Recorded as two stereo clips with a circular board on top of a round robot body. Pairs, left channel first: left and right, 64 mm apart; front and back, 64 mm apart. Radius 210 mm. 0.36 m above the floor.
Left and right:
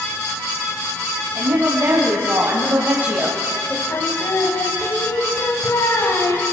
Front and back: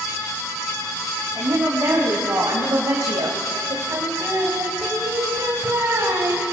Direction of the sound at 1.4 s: 125° right.